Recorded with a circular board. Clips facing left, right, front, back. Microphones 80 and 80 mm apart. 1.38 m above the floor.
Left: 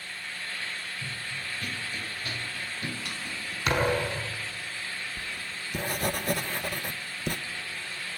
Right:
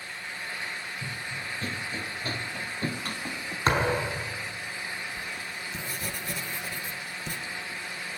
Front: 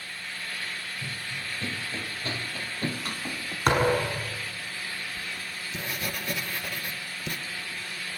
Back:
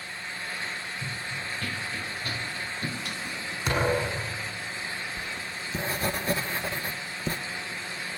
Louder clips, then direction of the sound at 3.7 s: Right 1 dB, front 3 dB; 35° right.